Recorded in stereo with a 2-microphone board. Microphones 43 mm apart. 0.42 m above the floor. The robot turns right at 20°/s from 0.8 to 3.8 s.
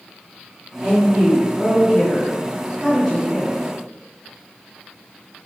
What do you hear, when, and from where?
0.8 s a woman speaking: 20° right (ahead or behind), 1.3 m; by 3.6 s 5° left (ahead or behind), 1.3 m